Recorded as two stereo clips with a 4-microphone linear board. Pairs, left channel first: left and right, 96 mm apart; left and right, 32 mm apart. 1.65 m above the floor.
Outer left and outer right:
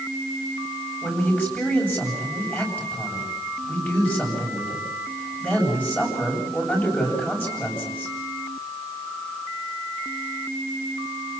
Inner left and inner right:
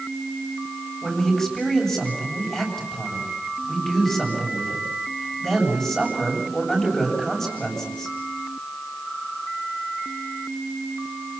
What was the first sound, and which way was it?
A man speaking, 20° left (ahead or behind).